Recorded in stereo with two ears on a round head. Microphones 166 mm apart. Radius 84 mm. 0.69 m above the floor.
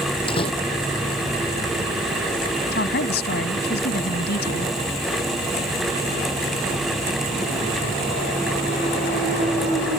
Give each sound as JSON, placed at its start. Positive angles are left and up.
{"t": 0.3, "sound": "a door slam", "side_deg": 30}
{"t": 2.7, "sound": "a woman speaking", "side_deg": 55}